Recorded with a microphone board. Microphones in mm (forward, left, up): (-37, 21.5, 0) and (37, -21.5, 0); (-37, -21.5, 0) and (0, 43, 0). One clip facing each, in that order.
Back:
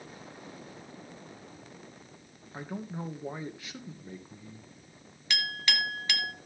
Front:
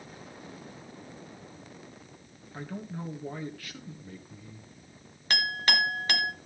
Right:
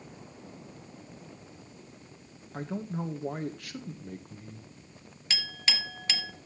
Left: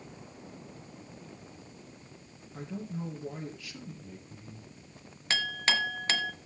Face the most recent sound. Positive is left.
turn(degrees=15)